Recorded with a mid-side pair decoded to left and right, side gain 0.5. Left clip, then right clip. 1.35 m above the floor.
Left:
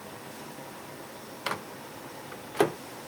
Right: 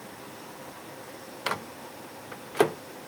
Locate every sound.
1.5 s a microwave: 15° right, 0.7 m